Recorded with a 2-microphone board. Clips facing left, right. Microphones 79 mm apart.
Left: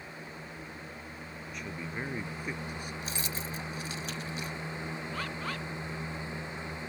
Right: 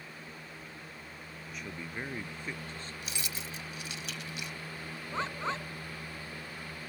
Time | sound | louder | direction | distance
1.5 | a man speaking | left 2 dB | centre (ahead or behind) | ?
3.0 | keys jangling | left 4 dB | 35° left (ahead or behind) | ?
5.1 | a bird | right 6 dB | 25° right (ahead or behind) | ?